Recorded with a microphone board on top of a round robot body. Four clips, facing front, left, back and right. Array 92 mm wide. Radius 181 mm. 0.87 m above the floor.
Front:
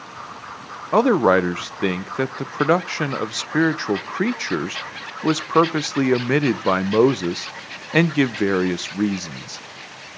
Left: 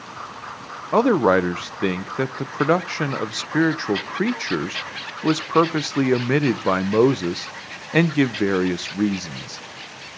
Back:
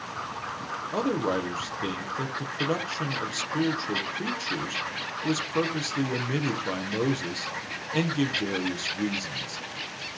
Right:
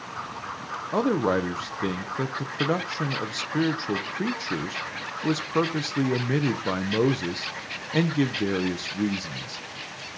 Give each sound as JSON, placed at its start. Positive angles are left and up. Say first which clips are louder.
{"t": 0.9, "sound": "a man speaking", "louder": "left 7 dB, front 12 dB", "azimuth_deg": 35, "distance_m": 0.5}